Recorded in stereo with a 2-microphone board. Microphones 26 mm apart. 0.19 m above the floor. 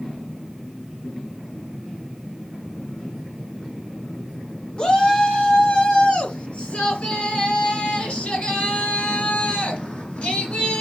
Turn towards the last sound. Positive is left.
turn(degrees=60)  # may be behind; listen again after turning